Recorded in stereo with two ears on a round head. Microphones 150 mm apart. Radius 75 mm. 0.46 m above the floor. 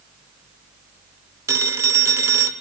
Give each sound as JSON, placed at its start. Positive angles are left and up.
{"t": 1.5, "sound": "a phone ringing", "side_deg": -15, "distance_m": 0.9}